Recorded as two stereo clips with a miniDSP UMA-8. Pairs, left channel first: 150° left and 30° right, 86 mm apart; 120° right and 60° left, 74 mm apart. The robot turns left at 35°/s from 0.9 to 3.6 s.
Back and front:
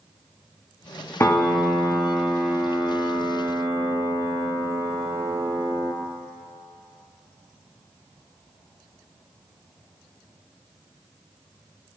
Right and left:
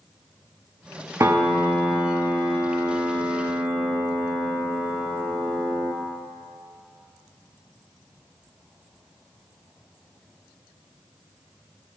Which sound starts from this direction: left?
A piano, at 1.2 s.